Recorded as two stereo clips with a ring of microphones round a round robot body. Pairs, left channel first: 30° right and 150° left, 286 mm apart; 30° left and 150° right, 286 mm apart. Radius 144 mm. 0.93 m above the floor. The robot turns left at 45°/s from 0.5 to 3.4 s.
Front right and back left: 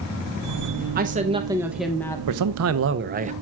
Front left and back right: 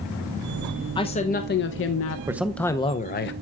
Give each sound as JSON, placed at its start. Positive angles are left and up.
{"t": 0.9, "sound": "a woman speaking", "azimuth_deg": 100, "distance_m": 0.6}
{"t": 2.3, "sound": "a man speaking", "azimuth_deg": 130, "distance_m": 0.6}